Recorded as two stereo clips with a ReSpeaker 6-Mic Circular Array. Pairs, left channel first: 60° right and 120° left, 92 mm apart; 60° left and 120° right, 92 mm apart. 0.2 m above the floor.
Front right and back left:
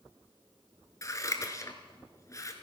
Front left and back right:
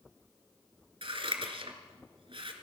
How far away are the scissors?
About 1.3 m.